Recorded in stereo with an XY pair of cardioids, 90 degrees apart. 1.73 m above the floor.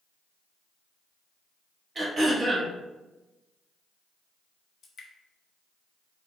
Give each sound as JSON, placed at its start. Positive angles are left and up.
{"t": 1.9, "sound": "throat clearing", "azimuth_deg": -40, "distance_m": 0.8}
{"t": 4.8, "sound": "dripping", "azimuth_deg": 55, "distance_m": 0.7}